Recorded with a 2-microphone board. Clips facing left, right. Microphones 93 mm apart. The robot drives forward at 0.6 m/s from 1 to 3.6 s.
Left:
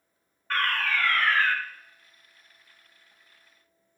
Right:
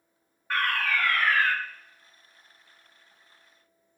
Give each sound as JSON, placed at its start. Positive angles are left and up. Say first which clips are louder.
{"t": 0.5, "sound": "a fire alarm", "louder": "even", "side_deg": -10, "distance_m": 1.9}